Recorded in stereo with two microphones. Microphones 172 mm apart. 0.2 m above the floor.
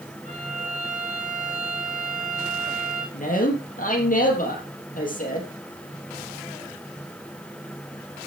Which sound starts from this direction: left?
A man speaking, at 3.1 s.